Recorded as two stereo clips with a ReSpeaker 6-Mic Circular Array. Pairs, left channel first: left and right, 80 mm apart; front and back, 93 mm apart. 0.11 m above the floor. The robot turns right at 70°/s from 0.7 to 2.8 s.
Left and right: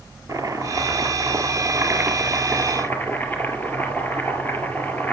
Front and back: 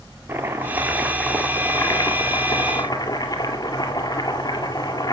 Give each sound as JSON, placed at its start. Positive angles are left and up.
{"t": 0.3, "sound": "chopping", "azimuth_deg": -120, "distance_m": 1.8}